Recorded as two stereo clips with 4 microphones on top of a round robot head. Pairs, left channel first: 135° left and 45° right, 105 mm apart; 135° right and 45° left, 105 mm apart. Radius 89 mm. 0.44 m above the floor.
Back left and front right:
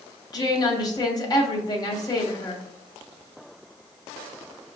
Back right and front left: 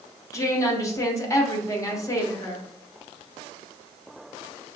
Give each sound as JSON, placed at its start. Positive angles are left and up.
{"t": 0.3, "sound": "a woman speaking", "azimuth_deg": 175, "distance_m": 1.2}